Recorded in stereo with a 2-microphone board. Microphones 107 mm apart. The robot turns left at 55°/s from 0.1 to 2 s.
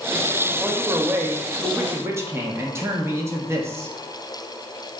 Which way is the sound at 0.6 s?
10° right (ahead or behind).